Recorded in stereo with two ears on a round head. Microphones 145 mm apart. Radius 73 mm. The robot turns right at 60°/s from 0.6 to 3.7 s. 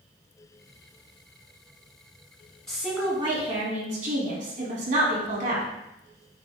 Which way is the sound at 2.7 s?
175° left.